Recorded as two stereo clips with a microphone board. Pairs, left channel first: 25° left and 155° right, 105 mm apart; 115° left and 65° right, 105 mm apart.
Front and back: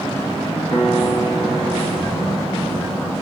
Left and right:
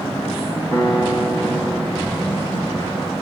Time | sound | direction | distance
0.7 | a piano | 25° left | 1.8 m